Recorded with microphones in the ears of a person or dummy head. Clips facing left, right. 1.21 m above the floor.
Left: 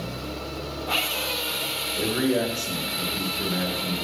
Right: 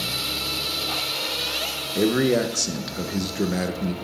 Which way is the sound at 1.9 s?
45° right (ahead or behind).